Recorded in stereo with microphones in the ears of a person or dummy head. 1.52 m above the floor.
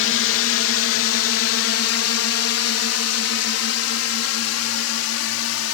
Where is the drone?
65° left (ahead or behind); by 5.7 s 75° left (ahead or behind).